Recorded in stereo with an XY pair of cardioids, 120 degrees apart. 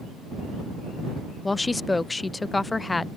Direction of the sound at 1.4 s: 15° left.